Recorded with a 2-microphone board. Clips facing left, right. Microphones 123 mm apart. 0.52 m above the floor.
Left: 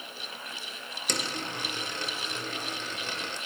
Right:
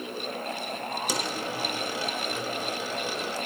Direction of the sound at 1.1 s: 5° right (ahead or behind).